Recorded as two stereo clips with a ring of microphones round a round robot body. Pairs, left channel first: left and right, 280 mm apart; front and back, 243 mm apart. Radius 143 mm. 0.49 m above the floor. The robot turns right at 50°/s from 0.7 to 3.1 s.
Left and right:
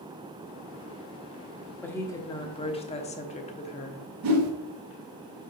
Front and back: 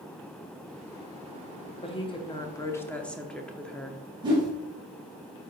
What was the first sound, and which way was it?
A woman speaking, 15° left.